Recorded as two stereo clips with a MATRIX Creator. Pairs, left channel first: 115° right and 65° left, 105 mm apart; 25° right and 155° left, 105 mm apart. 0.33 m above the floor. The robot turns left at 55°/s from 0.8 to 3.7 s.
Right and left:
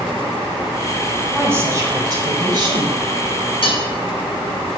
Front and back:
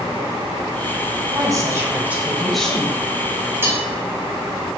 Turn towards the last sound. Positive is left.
turn(degrees=-140)